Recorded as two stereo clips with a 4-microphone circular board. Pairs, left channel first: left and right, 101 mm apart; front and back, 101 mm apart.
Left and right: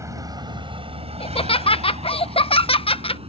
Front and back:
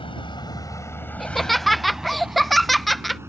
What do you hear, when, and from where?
0.0 s a vehicle: 30° right; by 3.3 s 115° right
1.2 s laughter: 90° left